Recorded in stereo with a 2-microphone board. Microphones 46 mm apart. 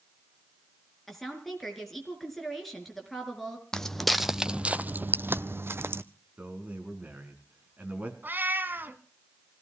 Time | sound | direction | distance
1.1 | a woman speaking | centre (ahead or behind) | 4.5 m
3.7 | footsteps | 15° left (ahead or behind) | 0.7 m
6.4 | a man speaking | 35° right (ahead or behind) | 4 m
8.2 | a cat meowing | 45° right (ahead or behind) | 1.5 m